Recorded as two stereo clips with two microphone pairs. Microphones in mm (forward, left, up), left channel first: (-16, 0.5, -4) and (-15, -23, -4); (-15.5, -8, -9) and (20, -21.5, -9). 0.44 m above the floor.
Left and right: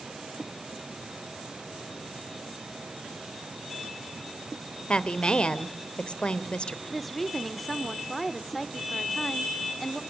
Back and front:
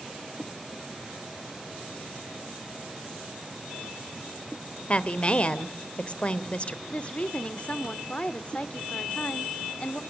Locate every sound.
4.9 s a woman speaking: 105° left, 1.2 m
6.9 s a woman speaking: 165° left, 0.8 m